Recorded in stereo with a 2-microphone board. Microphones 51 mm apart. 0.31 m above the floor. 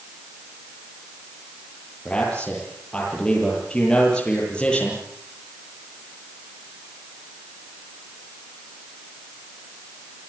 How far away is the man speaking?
About 9 m.